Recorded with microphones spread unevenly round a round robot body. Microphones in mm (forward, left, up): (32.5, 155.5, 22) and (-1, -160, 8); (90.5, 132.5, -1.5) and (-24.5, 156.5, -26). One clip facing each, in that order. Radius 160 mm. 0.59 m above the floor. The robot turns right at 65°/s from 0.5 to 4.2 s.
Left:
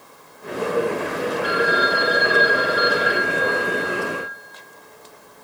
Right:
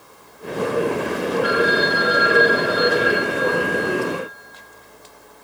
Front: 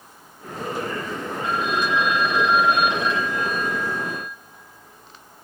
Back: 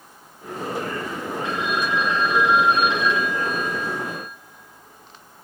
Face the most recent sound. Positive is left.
turn(degrees=115)